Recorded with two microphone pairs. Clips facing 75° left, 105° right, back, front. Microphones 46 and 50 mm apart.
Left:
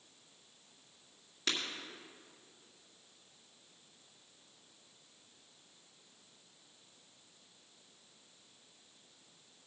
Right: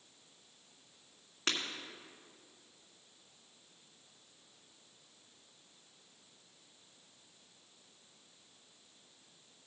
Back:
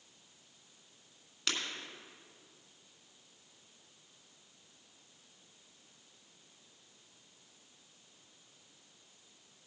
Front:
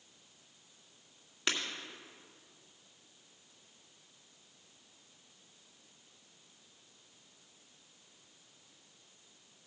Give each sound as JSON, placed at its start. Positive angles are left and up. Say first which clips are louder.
{"t": 1.5, "sound": "breaking glass", "louder": "right 1 dB, front 2 dB", "azimuth_deg": -70, "distance_m": 2.0}